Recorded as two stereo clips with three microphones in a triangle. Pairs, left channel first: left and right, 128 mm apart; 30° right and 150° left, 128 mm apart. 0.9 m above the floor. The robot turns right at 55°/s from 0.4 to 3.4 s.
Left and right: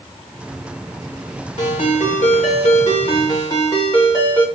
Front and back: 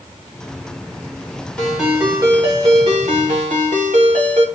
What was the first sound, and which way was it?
A ringtone, 50° left.